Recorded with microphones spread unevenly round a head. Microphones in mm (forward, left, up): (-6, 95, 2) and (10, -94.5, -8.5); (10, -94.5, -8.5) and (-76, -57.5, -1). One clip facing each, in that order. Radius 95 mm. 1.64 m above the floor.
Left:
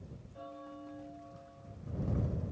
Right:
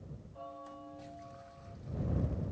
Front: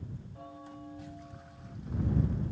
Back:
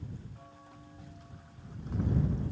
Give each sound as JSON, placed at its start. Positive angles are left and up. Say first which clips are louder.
{"t": 0.3, "sound": "a bell", "louder": "left 2 dB, front 7 dB", "azimuth_deg": 25}